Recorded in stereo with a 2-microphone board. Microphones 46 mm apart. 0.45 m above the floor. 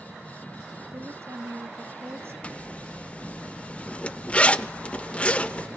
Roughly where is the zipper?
Left.